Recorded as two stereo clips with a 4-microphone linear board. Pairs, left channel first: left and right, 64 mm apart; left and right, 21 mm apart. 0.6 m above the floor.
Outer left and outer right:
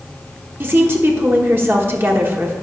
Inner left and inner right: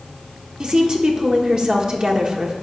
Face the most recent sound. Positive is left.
turn(degrees=-35)  # may be behind; listen again after turning